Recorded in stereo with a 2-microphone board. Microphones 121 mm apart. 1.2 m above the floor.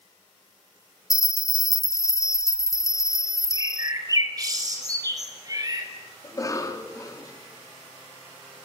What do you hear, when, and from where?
1.1 s a bell: 25° left (ahead or behind), 0.6 m
3.5 s a bird: 30° right (ahead or behind), 4 m
6.2 s a cough: 30° left (ahead or behind), 2.5 m